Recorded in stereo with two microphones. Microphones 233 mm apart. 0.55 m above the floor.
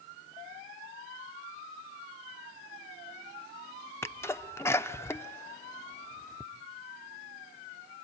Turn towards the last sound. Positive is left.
turn(degrees=10)  # may be behind; listen again after turning